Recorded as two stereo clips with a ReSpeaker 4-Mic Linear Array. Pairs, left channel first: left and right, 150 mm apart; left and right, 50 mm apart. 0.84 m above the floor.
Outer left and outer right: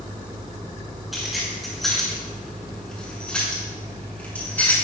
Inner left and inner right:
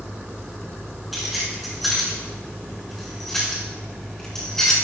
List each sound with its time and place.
1.1 s keys jangling: centre (ahead or behind), 8.5 m; by 4.7 s 10° left (ahead or behind), 7.5 m